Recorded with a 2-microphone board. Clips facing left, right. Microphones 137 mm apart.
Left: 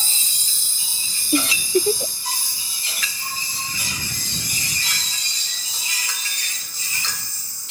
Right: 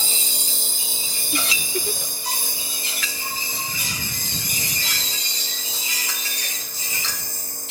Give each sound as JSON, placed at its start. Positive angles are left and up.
{"t": 0.0, "sound": "a lawn mower", "side_deg": -60}
{"t": 1.3, "sound": "a giggle", "side_deg": 35}